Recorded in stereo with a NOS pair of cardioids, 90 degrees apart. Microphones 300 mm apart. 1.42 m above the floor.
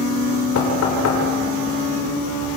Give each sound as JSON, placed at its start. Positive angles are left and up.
{"t": 0.6, "sound": "knocking", "azimuth_deg": 55, "distance_m": 5.5}